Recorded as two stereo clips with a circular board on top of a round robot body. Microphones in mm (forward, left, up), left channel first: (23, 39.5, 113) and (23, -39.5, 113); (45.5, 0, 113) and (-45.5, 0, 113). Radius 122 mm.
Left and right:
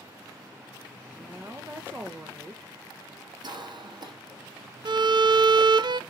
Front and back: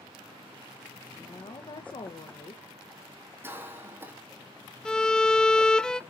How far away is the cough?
About 2.5 m.